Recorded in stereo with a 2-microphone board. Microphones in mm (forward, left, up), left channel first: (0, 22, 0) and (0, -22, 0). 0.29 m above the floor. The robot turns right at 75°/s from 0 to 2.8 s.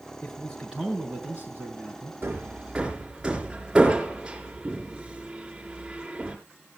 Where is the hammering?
60° right (ahead or behind), 4 m; by 6.4 s 15° right (ahead or behind), 4 m.